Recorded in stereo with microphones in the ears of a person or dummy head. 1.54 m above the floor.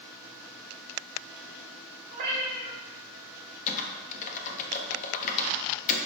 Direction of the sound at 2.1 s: 50° right (ahead or behind).